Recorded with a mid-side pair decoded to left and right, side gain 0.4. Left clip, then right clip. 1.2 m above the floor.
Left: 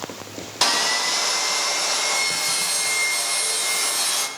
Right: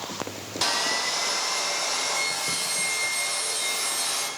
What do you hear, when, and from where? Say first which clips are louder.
0.6 s sawing: left 5 dB; 55° left, 0.8 m